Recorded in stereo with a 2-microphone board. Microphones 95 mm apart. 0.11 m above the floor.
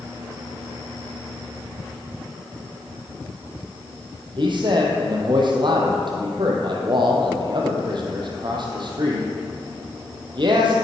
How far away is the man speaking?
About 3 m.